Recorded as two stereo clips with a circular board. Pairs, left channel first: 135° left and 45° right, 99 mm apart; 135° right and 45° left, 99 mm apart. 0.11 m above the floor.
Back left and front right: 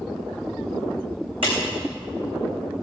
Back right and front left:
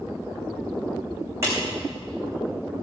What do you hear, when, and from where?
1.4 s a clap: 15° right, 6.5 m